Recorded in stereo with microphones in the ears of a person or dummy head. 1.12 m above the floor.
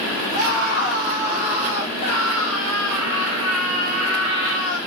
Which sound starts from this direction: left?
A scream, at 0.3 s.